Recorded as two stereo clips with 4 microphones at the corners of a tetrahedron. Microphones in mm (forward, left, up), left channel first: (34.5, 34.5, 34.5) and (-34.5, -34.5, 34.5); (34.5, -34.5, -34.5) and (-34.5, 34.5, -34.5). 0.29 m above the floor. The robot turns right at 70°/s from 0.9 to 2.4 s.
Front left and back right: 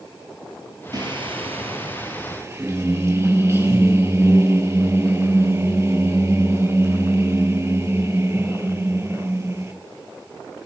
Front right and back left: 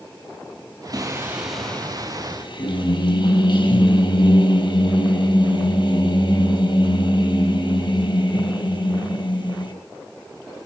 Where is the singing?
175° right, 4 m; by 9.7 s 75° right, 4 m.